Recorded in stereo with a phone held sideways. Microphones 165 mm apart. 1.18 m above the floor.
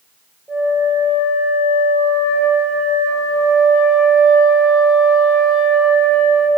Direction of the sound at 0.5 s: Centre (ahead or behind).